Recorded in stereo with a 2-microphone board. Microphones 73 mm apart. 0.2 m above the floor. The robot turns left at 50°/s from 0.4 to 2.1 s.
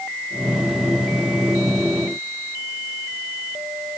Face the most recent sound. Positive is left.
No sound to turn to.